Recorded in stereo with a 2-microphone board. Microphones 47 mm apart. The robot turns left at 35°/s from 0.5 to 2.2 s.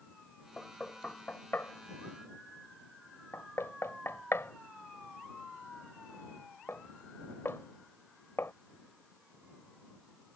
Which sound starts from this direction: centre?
Knocking, at 0.6 s.